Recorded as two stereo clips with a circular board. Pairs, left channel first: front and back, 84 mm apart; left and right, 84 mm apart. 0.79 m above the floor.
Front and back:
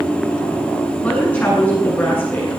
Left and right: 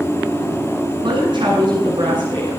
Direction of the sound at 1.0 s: 70° right.